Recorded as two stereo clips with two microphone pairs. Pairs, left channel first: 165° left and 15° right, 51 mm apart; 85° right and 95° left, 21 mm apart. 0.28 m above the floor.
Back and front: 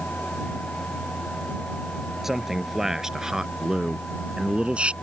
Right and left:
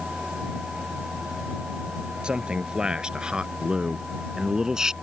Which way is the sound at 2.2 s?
70° left.